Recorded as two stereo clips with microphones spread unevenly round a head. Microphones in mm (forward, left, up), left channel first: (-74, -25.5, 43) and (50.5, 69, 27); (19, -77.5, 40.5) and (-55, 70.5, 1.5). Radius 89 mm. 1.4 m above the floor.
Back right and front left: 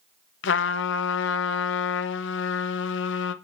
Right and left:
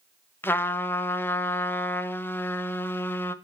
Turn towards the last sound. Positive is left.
turn(degrees=-140)